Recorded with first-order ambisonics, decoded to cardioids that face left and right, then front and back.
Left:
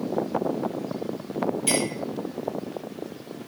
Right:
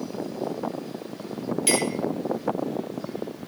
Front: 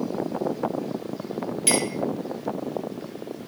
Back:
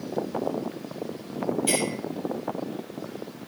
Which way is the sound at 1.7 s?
35° right.